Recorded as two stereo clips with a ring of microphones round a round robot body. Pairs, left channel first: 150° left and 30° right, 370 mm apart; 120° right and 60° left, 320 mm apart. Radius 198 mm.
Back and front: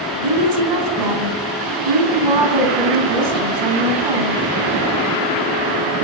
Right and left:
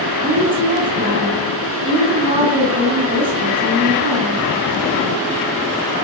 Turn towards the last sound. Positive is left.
turn(degrees=-15)